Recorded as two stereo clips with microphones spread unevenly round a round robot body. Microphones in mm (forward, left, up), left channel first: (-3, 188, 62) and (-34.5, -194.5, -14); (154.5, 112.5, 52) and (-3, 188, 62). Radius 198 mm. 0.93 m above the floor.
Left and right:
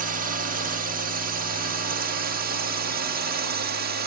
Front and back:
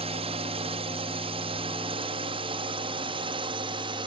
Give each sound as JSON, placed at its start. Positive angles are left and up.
{"t": 0.0, "sound": "a drone", "azimuth_deg": -150}